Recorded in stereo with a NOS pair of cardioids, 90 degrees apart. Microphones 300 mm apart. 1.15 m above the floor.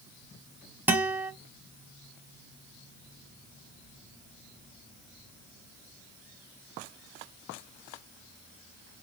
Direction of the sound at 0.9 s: 5° right.